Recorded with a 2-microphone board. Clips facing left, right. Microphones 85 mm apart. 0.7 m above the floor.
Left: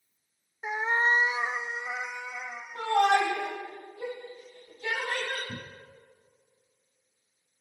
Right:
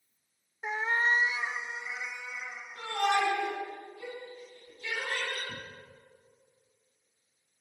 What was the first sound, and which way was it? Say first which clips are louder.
A cat meowing: left 2 dB; 5° left (ahead or behind).